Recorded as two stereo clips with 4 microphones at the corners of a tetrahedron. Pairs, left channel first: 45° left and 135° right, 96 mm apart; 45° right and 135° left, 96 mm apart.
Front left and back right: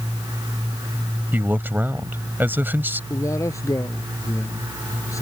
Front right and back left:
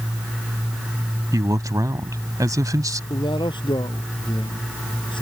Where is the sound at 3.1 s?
10° right.